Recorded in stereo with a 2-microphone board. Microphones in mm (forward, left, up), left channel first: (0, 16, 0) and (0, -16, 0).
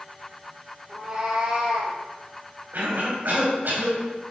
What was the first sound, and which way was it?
A cat meowing, 10° right (ahead or behind).